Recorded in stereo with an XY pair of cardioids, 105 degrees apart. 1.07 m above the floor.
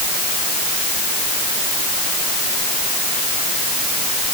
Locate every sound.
Only background noise.